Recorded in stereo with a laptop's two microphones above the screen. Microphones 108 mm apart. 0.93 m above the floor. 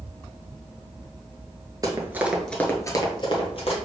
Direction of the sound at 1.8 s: 35° right (ahead or behind).